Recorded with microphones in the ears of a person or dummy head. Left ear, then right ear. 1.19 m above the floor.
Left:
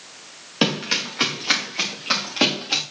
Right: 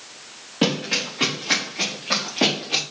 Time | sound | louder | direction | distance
0.6 | running footsteps | left 1 dB | 70° left (ahead or behind) | 6 m